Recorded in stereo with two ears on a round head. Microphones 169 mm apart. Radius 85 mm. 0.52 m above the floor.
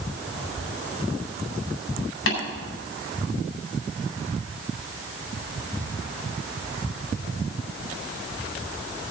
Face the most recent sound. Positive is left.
turn(degrees=70)  # may be behind; listen again after turning